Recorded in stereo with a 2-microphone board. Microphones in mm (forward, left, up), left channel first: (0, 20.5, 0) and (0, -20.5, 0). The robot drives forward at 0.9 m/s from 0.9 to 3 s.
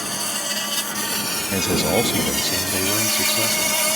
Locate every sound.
0.0 s an insect: centre (ahead or behind)
1.5 s a man speaking: 10° right (ahead or behind); by 3.8 s 5° right (ahead or behind)